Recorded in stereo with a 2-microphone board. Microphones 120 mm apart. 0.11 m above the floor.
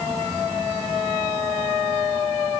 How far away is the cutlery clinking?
I don't hear cutlery clinking.